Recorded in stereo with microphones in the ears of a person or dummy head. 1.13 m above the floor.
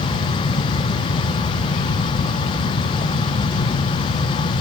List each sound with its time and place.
Only background noise.